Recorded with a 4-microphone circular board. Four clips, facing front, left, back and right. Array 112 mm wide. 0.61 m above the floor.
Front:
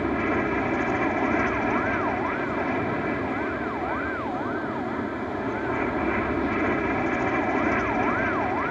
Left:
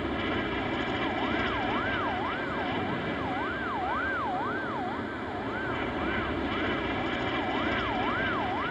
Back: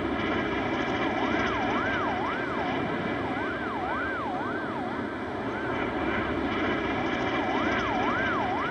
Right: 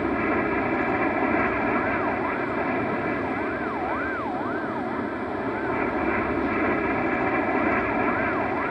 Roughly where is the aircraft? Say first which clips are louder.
Right 7 dB, front 4 dB; ahead right.